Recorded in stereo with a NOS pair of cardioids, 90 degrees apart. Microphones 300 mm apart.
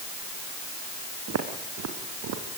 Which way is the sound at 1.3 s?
60° right.